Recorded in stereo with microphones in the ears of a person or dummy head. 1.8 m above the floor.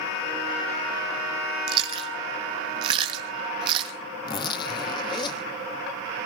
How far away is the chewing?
About 1.3 m.